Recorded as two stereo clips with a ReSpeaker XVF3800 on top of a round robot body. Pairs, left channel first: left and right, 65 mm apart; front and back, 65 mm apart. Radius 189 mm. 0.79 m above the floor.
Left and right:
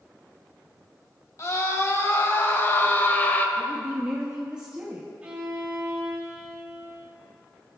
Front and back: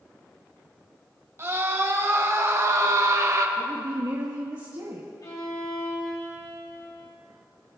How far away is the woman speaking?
About 1.5 m.